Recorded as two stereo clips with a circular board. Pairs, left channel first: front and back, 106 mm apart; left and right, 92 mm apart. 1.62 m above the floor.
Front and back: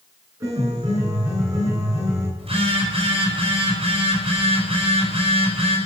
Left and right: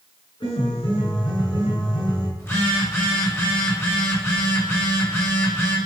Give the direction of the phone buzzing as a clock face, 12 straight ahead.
7 o'clock.